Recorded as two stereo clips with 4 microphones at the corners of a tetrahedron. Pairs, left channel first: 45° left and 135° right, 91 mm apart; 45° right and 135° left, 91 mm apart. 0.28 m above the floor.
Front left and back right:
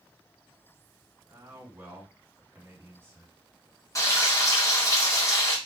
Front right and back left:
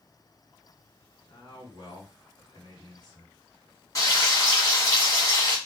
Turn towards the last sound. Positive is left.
turn(degrees=0)